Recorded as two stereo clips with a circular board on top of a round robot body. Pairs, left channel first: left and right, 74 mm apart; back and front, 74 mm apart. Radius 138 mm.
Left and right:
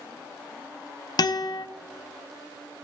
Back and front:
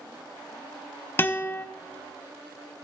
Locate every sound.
1.2 s a guitar: 120° left, 0.7 m